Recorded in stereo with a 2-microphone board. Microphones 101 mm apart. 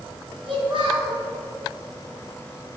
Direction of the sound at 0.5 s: 55° right (ahead or behind).